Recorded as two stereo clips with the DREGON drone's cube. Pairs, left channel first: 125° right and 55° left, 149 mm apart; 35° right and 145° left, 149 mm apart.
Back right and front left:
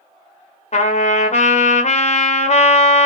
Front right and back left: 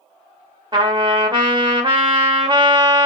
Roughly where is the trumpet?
Behind.